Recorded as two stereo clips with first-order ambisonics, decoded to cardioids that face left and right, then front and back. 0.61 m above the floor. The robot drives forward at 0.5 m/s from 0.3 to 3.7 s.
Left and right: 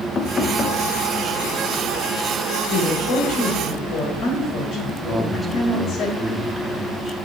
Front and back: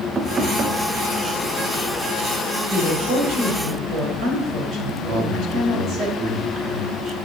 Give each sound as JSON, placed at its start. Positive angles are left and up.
{"t": 0.1, "sound": "knocking", "azimuth_deg": 130, "distance_m": 0.6}
{"t": 2.7, "sound": "a woman speaking", "azimuth_deg": 130, "distance_m": 3.0}
{"t": 5.1, "sound": "a man speaking", "azimuth_deg": 170, "distance_m": 1.4}